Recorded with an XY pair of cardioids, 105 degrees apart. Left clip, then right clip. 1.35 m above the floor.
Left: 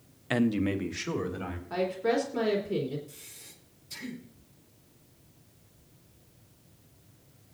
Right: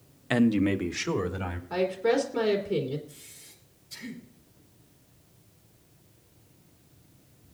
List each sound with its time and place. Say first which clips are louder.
0.3 s a man speaking: right 3 dB; 10° right, 0.7 m; by 1.6 s 25° right, 2.5 m
1.7 s a woman speaking: right 3 dB; 10° right, 2.5 m
3.1 s breathing: left 1 dB; 50° left, 7 m